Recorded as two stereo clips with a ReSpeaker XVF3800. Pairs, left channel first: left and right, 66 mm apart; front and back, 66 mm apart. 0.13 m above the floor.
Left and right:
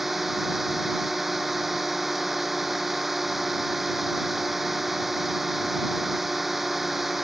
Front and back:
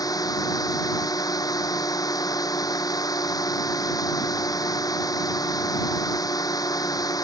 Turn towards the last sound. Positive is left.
turn(degrees=-5)